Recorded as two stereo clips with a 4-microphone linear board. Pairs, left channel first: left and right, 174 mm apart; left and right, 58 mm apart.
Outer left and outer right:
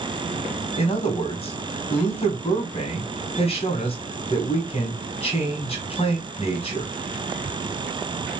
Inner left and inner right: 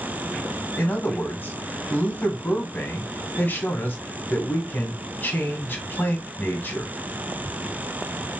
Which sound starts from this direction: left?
A man speaking, at 0.8 s.